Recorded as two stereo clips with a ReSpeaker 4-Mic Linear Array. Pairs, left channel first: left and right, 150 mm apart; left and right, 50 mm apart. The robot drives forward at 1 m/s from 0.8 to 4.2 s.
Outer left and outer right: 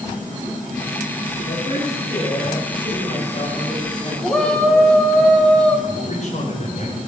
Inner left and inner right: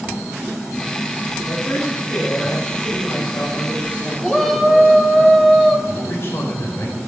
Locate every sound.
1.4 s a woman speaking: 65° left (ahead or behind), 7 m; by 5.2 s 50° left (ahead or behind), 8.5 m
4.2 s a shout: 10° left (ahead or behind), 3 m
5.9 s a man speaking: 50° left (ahead or behind), 5.5 m